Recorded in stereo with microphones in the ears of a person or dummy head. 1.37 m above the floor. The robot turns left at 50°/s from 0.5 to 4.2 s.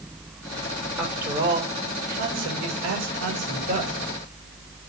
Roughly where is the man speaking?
Ahead.